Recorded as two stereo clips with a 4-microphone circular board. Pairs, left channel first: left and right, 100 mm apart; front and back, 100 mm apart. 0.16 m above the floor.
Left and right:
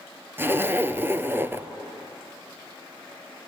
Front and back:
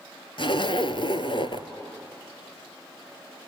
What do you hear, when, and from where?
0.4 s a zipper: 25° right, 1.0 m